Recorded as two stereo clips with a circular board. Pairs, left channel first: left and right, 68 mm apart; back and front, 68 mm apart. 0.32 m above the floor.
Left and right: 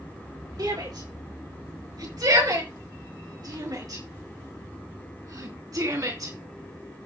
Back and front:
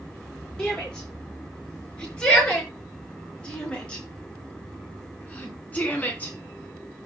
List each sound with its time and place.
0.6 s a shout: 100° right, 6.5 m; by 6.3 s 115° right, 3.5 m